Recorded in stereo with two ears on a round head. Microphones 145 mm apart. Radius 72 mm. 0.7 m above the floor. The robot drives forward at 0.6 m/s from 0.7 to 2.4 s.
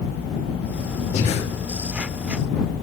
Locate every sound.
1.1 s breathing: 40° left (ahead or behind), 1.4 m; by 1.4 s 45° left (ahead or behind), 1.3 m